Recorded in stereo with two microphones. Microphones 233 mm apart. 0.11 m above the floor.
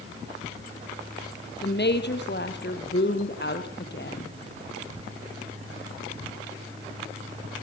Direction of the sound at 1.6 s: 45° left (ahead or behind).